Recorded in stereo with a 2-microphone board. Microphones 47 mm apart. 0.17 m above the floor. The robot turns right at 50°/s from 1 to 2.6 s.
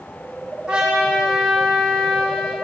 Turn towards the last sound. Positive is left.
turn(degrees=60)